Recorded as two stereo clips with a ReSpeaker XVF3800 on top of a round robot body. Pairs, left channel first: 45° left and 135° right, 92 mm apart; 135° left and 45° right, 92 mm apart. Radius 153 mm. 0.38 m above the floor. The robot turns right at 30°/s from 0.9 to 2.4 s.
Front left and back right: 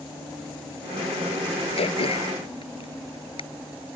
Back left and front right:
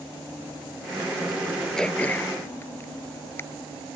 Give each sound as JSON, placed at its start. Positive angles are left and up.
{"t": 1.8, "sound": "throat clearing", "azimuth_deg": 50}